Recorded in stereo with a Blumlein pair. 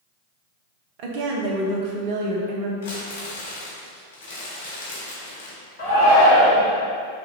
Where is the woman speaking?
45° right, 0.6 m.